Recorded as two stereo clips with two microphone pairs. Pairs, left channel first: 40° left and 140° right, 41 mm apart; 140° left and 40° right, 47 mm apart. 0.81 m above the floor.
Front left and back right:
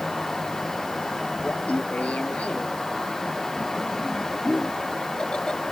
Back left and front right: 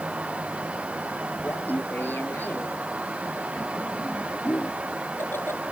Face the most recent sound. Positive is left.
turn(degrees=110)